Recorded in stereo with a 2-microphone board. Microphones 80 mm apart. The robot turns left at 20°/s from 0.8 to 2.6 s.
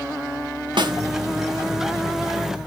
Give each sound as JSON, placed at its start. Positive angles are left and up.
{"t": 0.8, "sound": "a snare drum", "side_deg": -75, "distance_m": 0.6}